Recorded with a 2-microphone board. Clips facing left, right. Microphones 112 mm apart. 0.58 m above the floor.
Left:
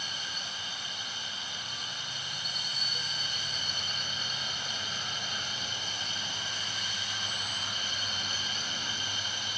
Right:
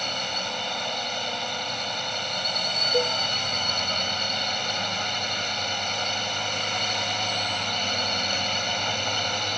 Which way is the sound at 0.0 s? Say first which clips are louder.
Right 11 dB; 70° right (ahead or behind).